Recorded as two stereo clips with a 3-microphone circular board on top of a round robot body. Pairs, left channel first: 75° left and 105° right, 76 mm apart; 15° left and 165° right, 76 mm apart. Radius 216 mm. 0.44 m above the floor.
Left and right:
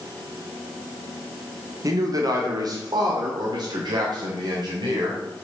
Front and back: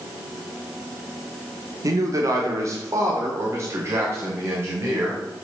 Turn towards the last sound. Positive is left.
turn(degrees=-105)